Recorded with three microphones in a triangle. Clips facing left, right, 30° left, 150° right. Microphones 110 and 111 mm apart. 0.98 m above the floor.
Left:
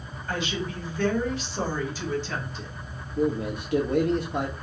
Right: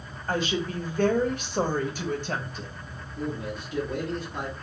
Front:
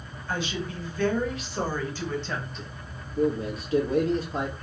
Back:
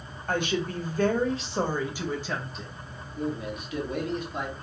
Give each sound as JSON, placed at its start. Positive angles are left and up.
{"t": 0.3, "sound": "a woman speaking", "azimuth_deg": -135, "distance_m": 1.4}
{"t": 3.2, "sound": "a man speaking", "azimuth_deg": 80, "distance_m": 1.6}